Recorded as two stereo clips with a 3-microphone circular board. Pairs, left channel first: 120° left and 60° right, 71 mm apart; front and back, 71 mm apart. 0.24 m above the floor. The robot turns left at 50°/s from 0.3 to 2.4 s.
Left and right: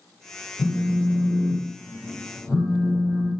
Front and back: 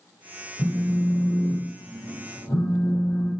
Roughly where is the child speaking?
I don't hear a child speaking.